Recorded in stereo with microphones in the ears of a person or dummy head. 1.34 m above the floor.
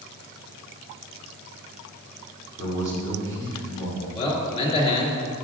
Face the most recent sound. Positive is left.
turn(degrees=25)  # may be behind; listen again after turning